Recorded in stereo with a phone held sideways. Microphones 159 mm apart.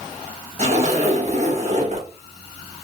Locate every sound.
0.6 s a zipper: 45° right (ahead or behind), 1.0 m